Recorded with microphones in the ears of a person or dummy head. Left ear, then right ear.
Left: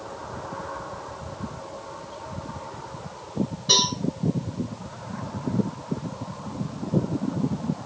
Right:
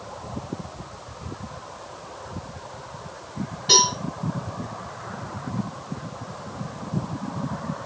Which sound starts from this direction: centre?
A cowbell, at 3.7 s.